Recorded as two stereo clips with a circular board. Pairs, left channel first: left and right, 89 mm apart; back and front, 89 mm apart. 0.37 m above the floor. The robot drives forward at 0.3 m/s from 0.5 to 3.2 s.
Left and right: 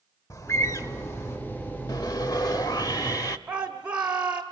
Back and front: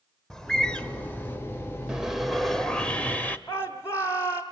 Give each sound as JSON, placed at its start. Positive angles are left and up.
{"t": 0.3, "sound": "a bird", "azimuth_deg": 100, "distance_m": 1.0}
{"t": 1.9, "sound": "sawing", "azimuth_deg": 75, "distance_m": 0.8}
{"t": 3.5, "sound": "a shout", "azimuth_deg": -155, "distance_m": 1.1}